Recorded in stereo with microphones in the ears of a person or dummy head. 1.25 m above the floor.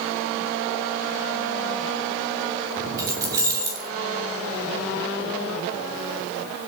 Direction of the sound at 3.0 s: 15° right (ahead or behind).